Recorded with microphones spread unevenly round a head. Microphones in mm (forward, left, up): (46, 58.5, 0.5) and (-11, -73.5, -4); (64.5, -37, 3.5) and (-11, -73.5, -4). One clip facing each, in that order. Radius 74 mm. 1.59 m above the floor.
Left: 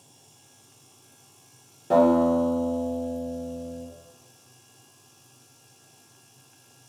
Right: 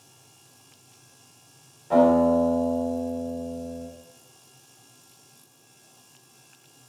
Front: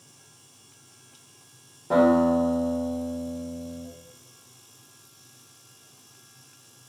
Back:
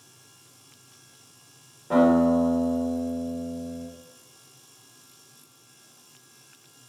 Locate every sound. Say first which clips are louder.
1.9 s a guitar: right 1 dB, even; 105° left, 3 m